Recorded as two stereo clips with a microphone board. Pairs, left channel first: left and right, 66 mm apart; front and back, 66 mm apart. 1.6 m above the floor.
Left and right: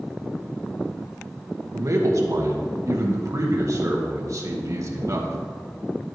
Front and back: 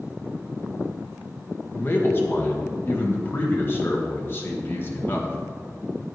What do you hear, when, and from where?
1.7 s a man speaking: 55° right, 1.8 m